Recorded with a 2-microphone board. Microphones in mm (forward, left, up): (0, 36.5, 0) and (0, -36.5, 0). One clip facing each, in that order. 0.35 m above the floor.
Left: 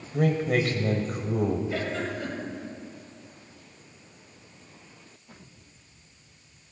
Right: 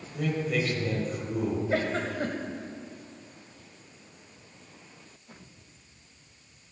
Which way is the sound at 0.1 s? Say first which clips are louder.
Left 5 dB; 50° left (ahead or behind).